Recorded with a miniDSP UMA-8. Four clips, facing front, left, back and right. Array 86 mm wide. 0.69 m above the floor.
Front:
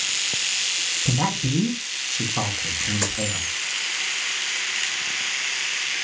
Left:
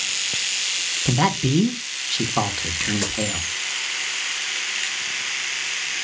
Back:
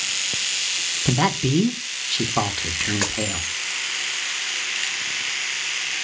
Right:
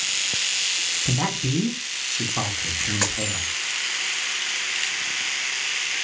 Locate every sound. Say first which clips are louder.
1.1 s a man speaking: left 6 dB, back 4 dB; 140° left, 0.5 m
3.0 s a dropped coin: right 1 dB, back 1 dB; 135° right, 2 m